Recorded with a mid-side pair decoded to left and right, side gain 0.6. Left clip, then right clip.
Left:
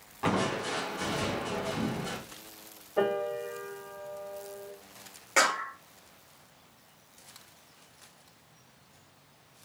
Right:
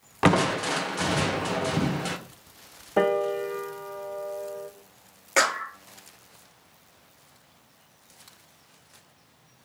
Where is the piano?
60° right, 0.9 m.